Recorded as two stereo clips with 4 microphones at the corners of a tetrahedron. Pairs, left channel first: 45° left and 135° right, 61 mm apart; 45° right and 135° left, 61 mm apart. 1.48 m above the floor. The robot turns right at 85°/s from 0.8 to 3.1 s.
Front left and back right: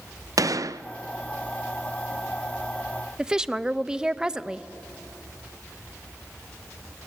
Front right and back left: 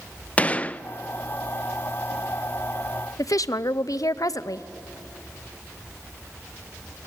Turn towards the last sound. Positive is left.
turn(degrees=-55)